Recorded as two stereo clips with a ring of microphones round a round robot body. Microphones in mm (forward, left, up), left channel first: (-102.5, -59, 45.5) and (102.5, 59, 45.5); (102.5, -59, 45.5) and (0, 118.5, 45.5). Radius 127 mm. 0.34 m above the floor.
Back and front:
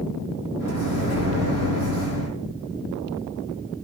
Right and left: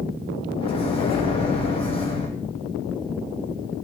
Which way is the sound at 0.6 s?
125° right.